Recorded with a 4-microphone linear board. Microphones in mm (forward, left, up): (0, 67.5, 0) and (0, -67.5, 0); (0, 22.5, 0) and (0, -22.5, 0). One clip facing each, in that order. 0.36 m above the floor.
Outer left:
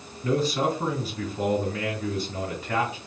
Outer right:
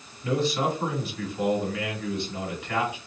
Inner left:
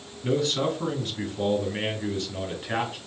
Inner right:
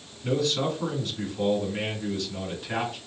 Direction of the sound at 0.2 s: 35° left (ahead or behind).